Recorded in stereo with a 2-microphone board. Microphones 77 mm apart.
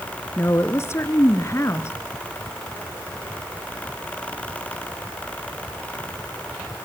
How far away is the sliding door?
No sliding door in this recording.